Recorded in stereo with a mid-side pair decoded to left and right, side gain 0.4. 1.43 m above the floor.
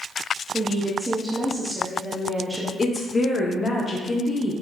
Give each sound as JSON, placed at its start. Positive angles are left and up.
{"t": 0.5, "sound": "a woman speaking", "azimuth_deg": -10, "distance_m": 0.8}
{"t": 2.8, "sound": "a woman speaking", "azimuth_deg": 30, "distance_m": 0.8}